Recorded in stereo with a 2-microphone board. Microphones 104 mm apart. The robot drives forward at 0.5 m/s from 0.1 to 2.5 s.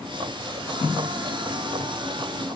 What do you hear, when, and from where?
Only background noise.